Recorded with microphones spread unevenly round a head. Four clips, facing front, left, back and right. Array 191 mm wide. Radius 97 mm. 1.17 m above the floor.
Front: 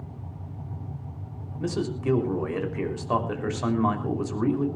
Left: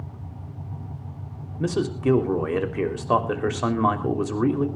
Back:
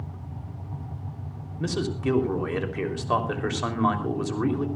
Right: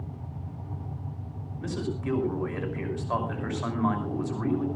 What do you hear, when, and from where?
1.6 s a man speaking: 95° left, 3.5 m